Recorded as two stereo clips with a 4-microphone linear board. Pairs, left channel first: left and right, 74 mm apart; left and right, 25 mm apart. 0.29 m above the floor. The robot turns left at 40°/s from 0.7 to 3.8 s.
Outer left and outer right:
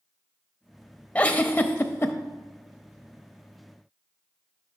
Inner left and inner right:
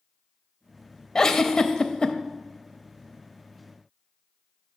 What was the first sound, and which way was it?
A giggle, 150° left.